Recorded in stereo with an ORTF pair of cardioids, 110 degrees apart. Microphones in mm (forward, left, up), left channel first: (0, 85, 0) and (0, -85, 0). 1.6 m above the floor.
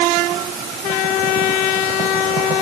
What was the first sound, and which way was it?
Only background noise.